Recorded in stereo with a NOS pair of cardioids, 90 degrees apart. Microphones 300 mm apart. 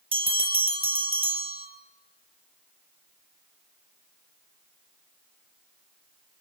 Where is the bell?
20° right, 4.5 m.